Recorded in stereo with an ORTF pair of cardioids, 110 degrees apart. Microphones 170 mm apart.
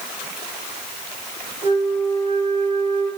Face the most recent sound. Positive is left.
turn(degrees=0)